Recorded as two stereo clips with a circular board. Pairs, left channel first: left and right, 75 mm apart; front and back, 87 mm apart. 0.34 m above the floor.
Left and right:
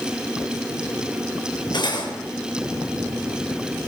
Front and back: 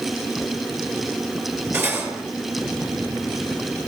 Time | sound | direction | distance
1.7 | cutlery clinking | 115° left | 5 m